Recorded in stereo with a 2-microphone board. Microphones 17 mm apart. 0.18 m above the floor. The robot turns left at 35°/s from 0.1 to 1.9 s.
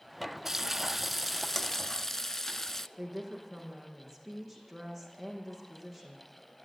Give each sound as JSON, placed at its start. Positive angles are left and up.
{"t": 0.5, "sound": "frying", "azimuth_deg": -165, "distance_m": 0.7}
{"t": 3.0, "sound": "a woman speaking", "side_deg": -5, "distance_m": 7.5}